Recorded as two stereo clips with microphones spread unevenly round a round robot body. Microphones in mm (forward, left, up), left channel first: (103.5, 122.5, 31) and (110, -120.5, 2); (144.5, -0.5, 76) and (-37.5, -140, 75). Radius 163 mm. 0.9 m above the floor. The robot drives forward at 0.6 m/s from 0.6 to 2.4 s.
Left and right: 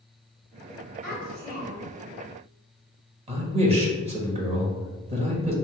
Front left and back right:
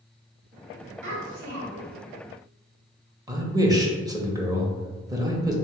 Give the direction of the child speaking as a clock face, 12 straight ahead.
4 o'clock.